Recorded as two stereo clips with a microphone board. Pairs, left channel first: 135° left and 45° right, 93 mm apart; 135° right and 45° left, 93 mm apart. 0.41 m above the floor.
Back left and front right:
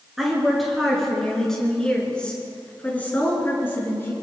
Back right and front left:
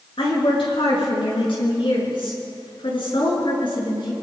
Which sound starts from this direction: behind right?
A woman speaking, at 0.2 s.